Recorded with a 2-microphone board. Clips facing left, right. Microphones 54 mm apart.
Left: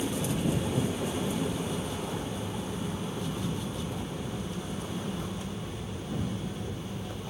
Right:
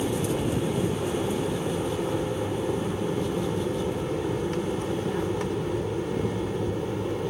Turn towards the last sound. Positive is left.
turn(degrees=-65)  # may be behind; listen again after turning